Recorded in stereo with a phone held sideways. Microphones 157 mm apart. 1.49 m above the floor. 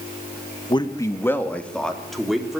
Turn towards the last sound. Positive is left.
turn(degrees=-5)  # may be behind; listen again after turning